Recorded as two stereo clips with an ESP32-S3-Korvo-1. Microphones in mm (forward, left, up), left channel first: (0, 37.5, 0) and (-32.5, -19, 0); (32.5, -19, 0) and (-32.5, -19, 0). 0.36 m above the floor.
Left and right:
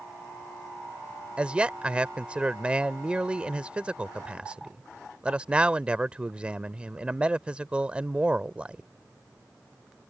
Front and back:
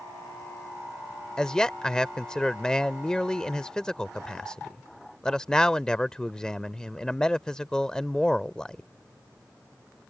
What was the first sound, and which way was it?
A man speaking, 65° right.